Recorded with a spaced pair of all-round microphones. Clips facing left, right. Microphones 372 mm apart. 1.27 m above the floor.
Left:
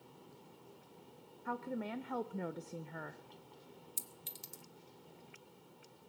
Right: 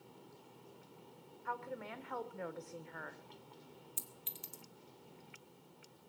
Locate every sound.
1.4 s a woman speaking: 50° left (ahead or behind), 0.6 m
4.0 s a clink: 55° left (ahead or behind), 1.1 m